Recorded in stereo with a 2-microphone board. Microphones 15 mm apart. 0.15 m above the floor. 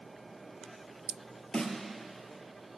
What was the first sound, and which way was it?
A snare drum, 55° left (ahead or behind).